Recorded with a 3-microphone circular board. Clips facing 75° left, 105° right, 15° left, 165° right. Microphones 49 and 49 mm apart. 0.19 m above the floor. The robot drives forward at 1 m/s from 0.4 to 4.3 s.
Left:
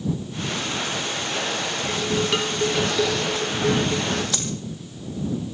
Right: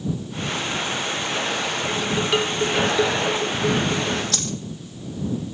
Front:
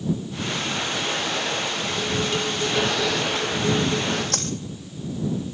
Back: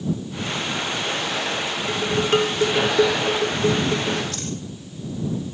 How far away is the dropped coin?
About 3.5 m.